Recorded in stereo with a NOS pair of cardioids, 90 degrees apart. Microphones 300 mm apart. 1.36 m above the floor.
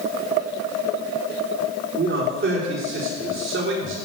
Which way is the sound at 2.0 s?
40° right.